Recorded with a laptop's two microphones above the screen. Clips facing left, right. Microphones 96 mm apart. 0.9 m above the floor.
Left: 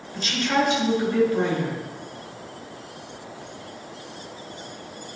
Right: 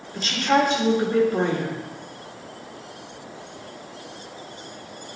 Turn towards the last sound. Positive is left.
turn(degrees=-40)  # may be behind; listen again after turning